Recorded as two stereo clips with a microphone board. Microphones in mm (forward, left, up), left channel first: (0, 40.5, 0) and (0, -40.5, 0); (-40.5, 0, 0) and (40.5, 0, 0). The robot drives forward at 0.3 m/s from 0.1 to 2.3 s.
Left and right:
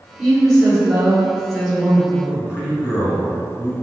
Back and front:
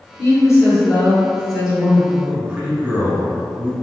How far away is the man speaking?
About 1.3 m.